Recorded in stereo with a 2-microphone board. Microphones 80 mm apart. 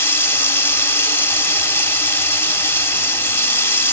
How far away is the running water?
About 0.8 m.